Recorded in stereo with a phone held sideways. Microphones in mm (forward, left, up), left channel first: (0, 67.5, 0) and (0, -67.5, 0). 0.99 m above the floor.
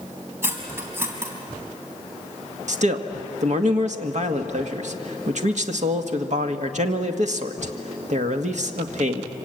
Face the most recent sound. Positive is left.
turn(degrees=-60)  # may be behind; listen again after turning